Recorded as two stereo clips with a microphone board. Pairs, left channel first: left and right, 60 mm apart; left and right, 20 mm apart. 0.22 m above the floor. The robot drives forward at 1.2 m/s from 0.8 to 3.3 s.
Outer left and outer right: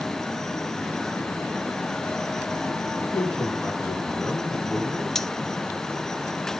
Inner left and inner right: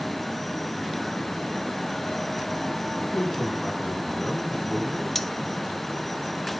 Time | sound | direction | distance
3.0 | a man speaking | 10° right (ahead or behind) | 3 m
5.2 | cutlery clinking | 10° left (ahead or behind) | 0.5 m